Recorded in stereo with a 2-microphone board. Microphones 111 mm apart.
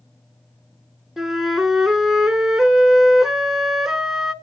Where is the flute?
5° right (ahead or behind), 0.7 m.